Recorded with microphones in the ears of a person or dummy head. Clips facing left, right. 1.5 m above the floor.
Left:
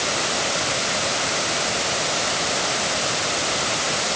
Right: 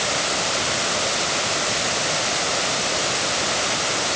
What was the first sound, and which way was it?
Only background noise.